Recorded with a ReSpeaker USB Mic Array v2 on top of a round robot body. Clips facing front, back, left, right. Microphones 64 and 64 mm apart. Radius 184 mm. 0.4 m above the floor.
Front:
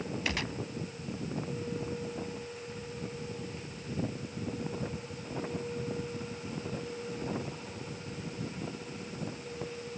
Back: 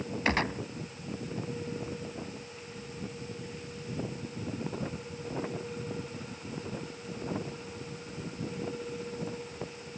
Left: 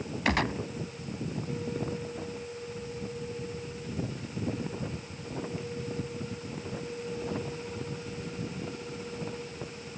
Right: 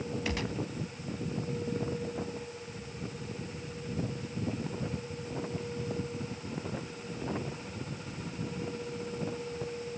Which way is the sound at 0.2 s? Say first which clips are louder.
Back 9 dB, left 10 dB; 125° left.